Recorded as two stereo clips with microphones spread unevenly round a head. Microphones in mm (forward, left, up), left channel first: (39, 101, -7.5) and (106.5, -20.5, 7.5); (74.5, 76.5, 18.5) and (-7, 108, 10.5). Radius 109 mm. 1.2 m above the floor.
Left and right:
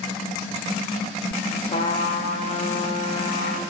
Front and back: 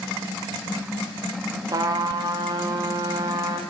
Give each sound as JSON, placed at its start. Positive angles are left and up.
{"t": 1.7, "sound": "a trumpet", "azimuth_deg": 145, "distance_m": 0.6}